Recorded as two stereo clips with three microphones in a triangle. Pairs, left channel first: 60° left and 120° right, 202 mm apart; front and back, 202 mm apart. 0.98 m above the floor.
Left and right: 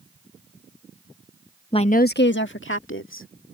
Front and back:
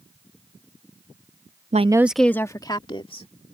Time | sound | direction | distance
1.7 | a woman speaking | 125° left | ?